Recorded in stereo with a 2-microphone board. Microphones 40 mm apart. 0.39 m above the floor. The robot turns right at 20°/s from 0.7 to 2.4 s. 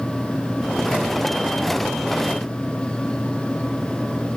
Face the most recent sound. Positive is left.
No sound to turn to.